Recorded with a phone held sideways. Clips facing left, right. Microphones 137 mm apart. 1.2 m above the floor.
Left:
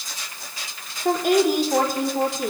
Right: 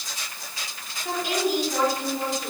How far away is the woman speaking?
About 4.5 m.